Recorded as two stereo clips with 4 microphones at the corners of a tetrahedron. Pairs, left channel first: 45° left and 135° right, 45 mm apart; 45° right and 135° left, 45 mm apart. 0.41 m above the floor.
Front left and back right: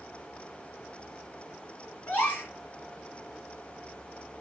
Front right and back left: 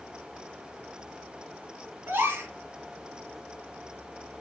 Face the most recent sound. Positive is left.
turn(degrees=100)